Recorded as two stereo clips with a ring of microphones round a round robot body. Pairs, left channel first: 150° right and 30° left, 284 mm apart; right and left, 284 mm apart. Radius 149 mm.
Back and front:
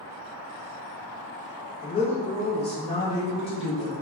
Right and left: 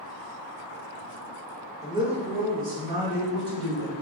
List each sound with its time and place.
1.8 s a woman speaking: 160° left, 1.0 m; by 3.9 s 140° left, 2.5 m